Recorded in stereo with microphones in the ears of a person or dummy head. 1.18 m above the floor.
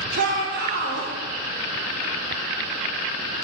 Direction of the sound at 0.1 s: 55° right (ahead or behind).